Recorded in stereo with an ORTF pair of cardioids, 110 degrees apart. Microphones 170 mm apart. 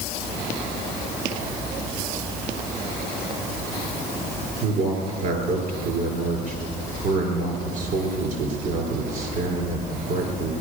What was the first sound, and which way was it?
A man speaking, 60° right.